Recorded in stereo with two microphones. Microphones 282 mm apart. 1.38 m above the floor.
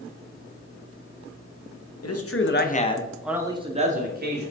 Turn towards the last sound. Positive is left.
turn(degrees=-40)  # may be behind; listen again after turning